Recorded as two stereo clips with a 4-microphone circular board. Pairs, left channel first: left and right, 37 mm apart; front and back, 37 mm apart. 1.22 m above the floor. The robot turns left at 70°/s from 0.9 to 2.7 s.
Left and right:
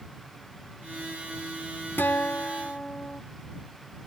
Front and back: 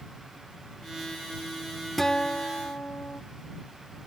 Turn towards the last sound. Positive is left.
turn(degrees=30)